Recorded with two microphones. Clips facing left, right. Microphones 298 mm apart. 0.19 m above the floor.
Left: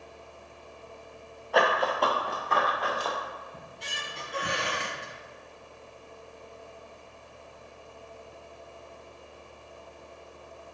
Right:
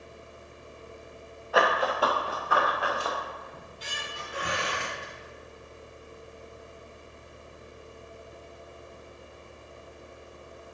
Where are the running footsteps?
5° right (ahead or behind), 1.6 m; by 3.2 s 10° right (ahead or behind), 3 m.